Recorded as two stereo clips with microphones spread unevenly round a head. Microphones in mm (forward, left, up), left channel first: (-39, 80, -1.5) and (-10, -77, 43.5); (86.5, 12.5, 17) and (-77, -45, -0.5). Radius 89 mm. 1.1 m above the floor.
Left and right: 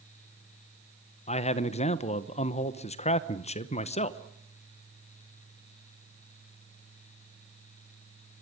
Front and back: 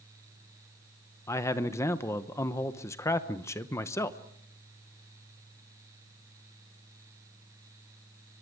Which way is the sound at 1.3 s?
95° left.